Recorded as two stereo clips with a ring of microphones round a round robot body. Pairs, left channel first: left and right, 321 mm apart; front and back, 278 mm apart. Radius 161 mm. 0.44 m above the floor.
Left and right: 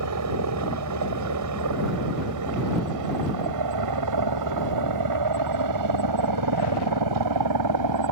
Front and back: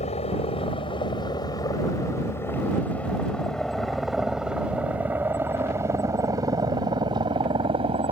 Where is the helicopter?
65° right; by 8.1 s 110° right.